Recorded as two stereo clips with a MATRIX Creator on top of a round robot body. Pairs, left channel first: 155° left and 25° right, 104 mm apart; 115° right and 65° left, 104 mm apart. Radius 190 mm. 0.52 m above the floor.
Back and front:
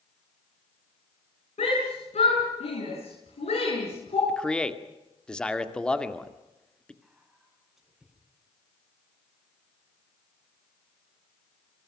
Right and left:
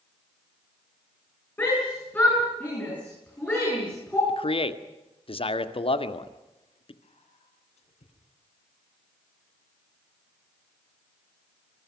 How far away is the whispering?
About 8.5 m.